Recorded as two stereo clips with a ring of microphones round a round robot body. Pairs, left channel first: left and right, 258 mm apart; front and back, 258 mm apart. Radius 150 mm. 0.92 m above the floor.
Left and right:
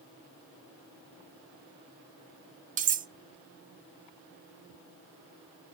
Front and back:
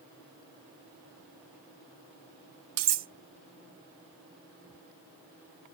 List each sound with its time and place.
2.8 s cutlery clinking: 150° right, 0.6 m